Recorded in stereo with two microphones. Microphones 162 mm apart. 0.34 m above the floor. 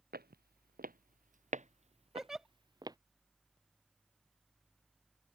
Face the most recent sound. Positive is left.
turn(degrees=-5)  # may be behind; listen again after turning